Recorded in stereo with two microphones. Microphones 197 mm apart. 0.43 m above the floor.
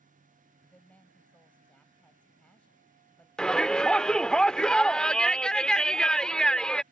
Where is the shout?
5° left (ahead or behind).